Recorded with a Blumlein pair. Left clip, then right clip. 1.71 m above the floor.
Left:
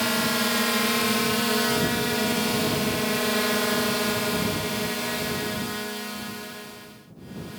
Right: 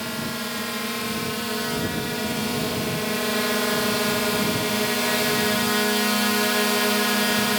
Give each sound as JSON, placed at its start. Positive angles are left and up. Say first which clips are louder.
{"t": 0.0, "sound": "a drone", "louder": "left 5 dB", "azimuth_deg": 20}